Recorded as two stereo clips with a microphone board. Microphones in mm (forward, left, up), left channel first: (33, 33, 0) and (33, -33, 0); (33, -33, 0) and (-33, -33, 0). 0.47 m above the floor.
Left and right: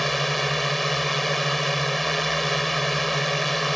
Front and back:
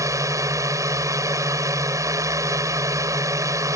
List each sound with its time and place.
0.0 s a drone: straight behind